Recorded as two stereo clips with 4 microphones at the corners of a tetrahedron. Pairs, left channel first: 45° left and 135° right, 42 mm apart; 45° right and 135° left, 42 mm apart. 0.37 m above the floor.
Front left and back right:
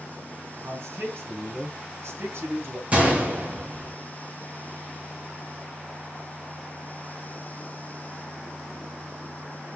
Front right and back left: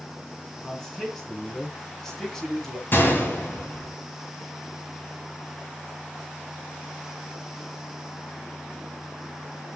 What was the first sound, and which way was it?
A man speaking, 120° right.